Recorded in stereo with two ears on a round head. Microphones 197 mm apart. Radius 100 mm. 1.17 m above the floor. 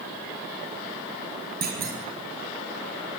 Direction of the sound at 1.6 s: 45° right (ahead or behind).